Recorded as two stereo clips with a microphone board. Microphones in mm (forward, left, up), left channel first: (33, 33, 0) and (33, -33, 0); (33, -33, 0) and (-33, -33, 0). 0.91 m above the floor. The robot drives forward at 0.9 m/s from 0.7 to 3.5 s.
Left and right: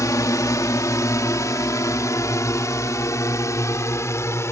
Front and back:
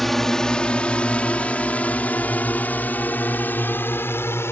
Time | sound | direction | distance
0.0 | a drone | 85° left | ?